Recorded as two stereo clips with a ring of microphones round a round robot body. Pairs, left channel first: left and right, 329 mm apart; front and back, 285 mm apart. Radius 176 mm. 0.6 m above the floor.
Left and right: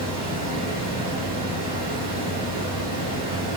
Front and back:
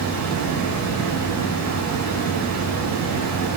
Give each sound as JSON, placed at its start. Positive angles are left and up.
{"t": 0.0, "sound": "running water", "azimuth_deg": 155, "distance_m": 4.0}